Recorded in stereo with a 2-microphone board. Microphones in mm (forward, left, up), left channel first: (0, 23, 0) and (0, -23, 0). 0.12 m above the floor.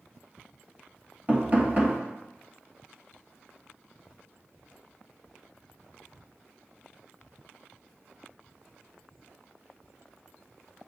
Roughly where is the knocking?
Right.